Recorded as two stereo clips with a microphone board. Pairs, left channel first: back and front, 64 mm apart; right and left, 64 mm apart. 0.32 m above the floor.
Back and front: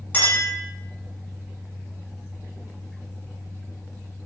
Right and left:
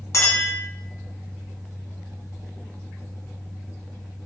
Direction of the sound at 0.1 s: 120° right.